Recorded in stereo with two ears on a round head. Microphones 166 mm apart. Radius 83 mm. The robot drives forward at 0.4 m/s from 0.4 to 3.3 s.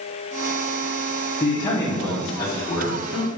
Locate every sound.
1.4 s a man speaking: 20° left (ahead or behind), 0.6 m; by 3.3 s 10° left (ahead or behind), 1.1 m